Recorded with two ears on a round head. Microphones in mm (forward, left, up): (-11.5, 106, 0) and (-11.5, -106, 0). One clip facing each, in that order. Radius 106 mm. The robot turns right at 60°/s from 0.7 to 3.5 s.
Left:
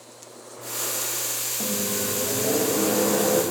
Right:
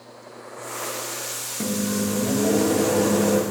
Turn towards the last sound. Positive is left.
turn(degrees=-35)